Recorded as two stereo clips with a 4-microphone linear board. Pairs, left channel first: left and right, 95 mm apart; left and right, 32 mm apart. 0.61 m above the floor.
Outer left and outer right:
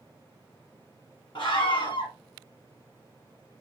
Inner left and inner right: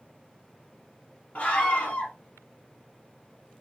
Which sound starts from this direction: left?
A scream, at 1.4 s.